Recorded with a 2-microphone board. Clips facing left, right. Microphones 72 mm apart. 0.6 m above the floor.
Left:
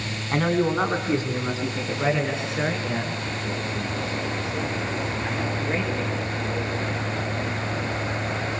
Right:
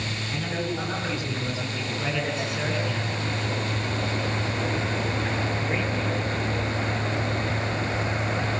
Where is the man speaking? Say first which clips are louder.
Left 9 dB; 60° left (ahead or behind), 5 m; by 7.2 s centre (ahead or behind), 11.5 m.